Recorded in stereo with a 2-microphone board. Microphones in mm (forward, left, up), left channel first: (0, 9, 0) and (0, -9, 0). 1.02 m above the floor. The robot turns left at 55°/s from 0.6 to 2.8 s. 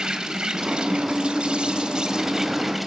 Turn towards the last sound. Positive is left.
turn(degrees=-175)